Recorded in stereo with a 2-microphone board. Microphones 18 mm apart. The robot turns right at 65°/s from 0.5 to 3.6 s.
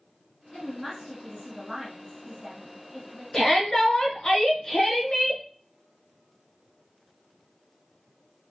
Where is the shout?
35° left (ahead or behind), 1.3 m; by 5.4 s 40° left (ahead or behind), 1.3 m.